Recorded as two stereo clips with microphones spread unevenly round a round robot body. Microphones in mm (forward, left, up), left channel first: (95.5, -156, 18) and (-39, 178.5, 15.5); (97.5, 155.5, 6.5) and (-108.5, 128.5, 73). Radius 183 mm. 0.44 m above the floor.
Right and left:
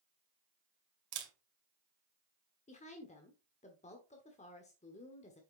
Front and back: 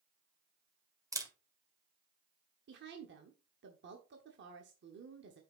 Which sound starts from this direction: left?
A camera shutter, at 1.1 s.